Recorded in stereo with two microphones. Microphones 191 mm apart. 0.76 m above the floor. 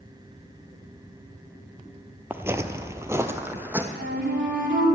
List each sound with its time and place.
2.3 s footsteps: 10° right (ahead or behind), 0.8 m
3.9 s a flute: 80° right, 2.5 m